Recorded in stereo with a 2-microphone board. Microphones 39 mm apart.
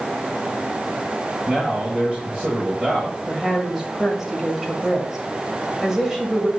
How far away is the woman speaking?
About 1.7 m.